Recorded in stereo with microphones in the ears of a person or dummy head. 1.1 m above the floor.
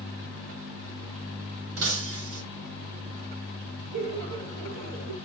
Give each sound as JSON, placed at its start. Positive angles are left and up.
{"t": 1.8, "sound": "breaking glass", "side_deg": -80, "distance_m": 3.0}
{"t": 3.9, "sound": "laughter", "side_deg": -70, "distance_m": 3.5}